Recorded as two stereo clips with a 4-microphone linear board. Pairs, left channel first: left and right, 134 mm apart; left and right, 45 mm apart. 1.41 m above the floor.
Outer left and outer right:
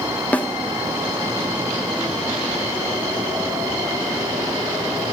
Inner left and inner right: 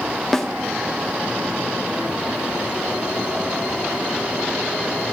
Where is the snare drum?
10° left (ahead or behind), 0.6 m.